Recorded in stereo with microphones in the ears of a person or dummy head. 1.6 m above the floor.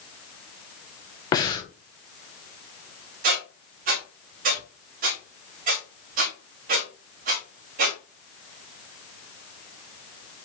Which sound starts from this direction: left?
Breathing, at 1.3 s.